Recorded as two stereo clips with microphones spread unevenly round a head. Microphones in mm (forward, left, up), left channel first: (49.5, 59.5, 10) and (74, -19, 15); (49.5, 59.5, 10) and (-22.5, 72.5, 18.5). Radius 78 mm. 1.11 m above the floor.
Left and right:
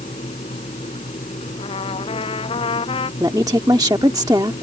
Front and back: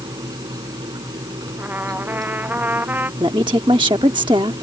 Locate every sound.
0.0 s a fan: 140° left
1.6 s a trumpet: 105° left
3.2 s a woman speaking: 140° right